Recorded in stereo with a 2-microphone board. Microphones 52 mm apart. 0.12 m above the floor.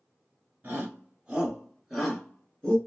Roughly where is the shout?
Right.